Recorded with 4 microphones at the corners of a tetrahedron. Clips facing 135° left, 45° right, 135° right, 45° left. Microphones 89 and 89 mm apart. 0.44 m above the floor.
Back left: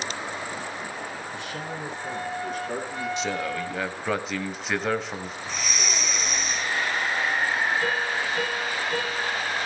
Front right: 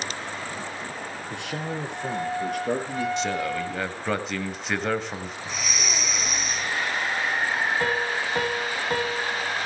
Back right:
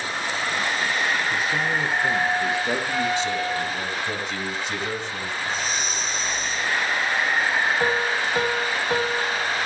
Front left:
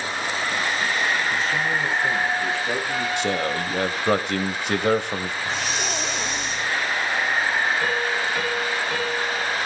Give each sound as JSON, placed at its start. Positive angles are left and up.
{"t": 1.3, "sound": "a man speaking", "azimuth_deg": -55, "distance_m": 6.0}
{"t": 3.2, "sound": "a man speaking", "azimuth_deg": 45, "distance_m": 1.9}
{"t": 5.5, "sound": "breathing", "azimuth_deg": 45, "distance_m": 1.2}
{"t": 7.8, "sound": "a piano", "azimuth_deg": -85, "distance_m": 3.0}